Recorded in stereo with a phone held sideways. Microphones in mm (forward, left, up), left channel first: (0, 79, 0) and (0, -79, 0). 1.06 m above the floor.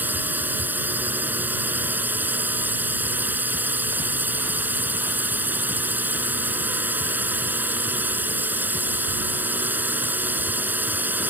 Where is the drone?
10° right (ahead or behind).